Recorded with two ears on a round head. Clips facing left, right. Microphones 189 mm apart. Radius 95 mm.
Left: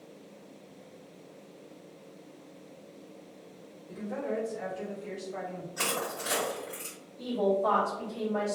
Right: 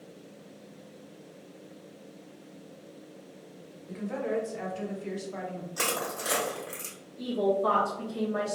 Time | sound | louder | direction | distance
3.9 | a woman speaking | right 3 dB | 80° right | 1.3 m
5.8 | crushing | right 1 dB | 40° right (ahead or behind) | 1.5 m
7.2 | a woman speaking | right 1 dB | 40° right (ahead or behind) | 1.1 m